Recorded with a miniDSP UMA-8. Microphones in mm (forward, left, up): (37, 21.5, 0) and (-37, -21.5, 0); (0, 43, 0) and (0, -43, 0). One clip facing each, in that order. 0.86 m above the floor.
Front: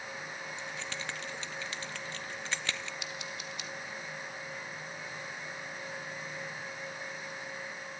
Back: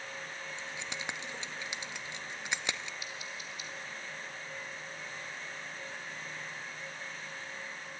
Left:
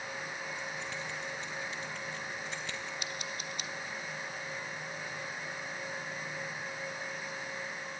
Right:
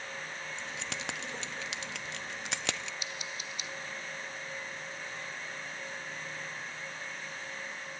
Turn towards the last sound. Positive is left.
turn(degrees=50)